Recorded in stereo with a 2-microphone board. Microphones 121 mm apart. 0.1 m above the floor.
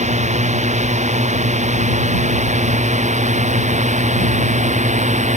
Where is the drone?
75° right (ahead or behind); by 5.4 s 80° right.